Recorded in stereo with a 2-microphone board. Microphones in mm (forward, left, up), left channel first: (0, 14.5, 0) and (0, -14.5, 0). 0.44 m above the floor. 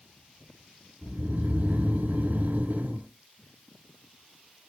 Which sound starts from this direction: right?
Snoring, at 1.0 s.